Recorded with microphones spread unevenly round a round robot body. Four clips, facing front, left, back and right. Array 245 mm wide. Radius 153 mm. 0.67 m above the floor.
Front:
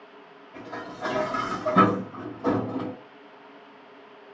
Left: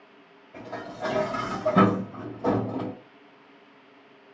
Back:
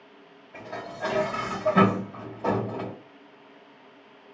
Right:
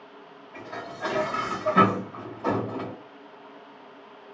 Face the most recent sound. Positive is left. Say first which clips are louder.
# left 1 dB, even
turn(degrees=140)